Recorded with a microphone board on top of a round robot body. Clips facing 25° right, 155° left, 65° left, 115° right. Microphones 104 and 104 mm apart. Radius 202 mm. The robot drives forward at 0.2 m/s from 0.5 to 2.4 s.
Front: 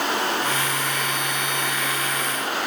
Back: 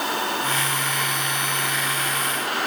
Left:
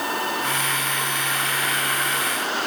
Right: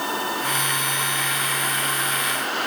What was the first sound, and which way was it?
Only background noise.